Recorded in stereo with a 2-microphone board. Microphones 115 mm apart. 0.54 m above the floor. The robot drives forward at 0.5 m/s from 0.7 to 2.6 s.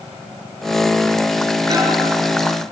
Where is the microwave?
40° right (ahead or behind), 8 m.